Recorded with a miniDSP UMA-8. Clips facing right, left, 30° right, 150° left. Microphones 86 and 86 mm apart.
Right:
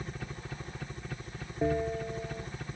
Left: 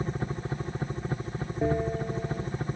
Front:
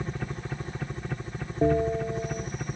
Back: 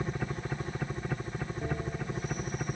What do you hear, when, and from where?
0.0 s a helicopter: 65° left
1.6 s a bell: 5° left